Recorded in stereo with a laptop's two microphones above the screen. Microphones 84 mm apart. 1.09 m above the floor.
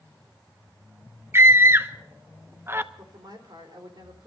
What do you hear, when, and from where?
1.3 s a scream: 30° right (ahead or behind), 0.8 m
3.0 s a woman speaking: 60° right (ahead or behind), 4 m